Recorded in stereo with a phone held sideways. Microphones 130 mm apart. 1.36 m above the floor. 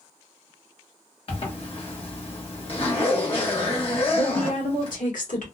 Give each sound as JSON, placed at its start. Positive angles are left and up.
{"t": 1.3, "sound": "a zipper", "side_deg": 45, "distance_m": 1.2}
{"t": 4.1, "sound": "a woman speaking", "side_deg": 85, "distance_m": 1.4}